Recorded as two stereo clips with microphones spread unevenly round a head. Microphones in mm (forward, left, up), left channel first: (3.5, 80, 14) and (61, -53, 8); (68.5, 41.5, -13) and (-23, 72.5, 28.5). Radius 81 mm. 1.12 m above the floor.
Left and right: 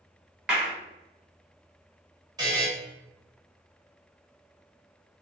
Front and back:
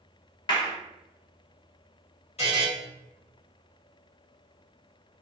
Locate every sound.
0.5 s a clap: 15° left, 1.3 m
2.4 s a buzzer: 5° right, 1.3 m